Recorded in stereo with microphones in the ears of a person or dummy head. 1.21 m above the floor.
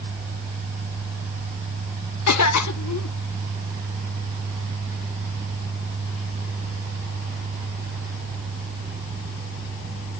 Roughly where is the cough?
Left.